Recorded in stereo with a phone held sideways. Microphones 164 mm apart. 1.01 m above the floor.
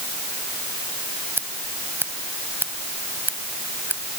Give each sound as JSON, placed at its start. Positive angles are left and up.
{"t": 1.4, "sound": "scissors", "side_deg": -15}